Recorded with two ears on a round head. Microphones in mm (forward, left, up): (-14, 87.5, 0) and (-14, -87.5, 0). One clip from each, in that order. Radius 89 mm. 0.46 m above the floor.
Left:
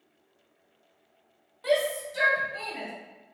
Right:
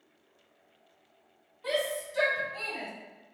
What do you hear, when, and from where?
1.6 s a shout: 35° left (ahead or behind), 1.2 m; by 2.9 s 15° right (ahead or behind), 1.6 m